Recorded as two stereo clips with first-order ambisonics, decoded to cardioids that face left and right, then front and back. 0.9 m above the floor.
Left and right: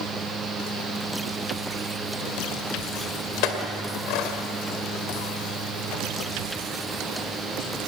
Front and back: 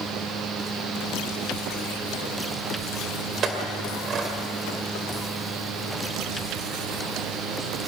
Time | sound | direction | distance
3.4 | a clink | 120° left | 2.5 m